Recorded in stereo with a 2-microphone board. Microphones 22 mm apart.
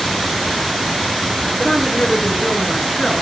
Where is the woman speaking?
40° left (ahead or behind), 4 m; by 3.2 s 25° left (ahead or behind), 4.5 m.